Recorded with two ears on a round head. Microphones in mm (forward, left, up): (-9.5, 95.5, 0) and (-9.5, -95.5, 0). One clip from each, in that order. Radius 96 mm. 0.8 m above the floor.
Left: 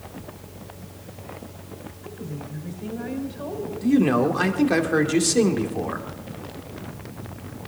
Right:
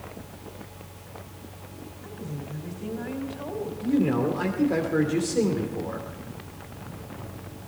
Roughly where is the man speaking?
Left.